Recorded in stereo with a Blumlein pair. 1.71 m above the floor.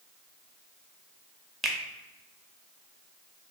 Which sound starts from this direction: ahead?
A finger snap, at 1.6 s.